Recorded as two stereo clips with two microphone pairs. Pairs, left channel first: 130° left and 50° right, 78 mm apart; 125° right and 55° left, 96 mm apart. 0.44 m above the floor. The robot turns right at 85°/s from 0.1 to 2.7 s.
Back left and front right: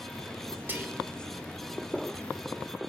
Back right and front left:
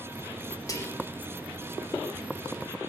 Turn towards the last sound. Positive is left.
turn(degrees=70)